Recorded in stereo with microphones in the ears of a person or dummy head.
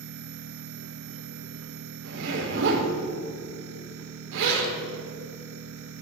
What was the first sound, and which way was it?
A machine running, 65° right (ahead or behind).